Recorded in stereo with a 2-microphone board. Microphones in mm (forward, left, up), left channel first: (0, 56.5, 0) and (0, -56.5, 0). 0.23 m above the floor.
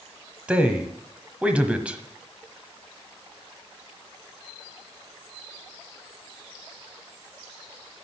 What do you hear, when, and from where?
0.5 s a man speaking: 10° right (ahead or behind), 1.1 m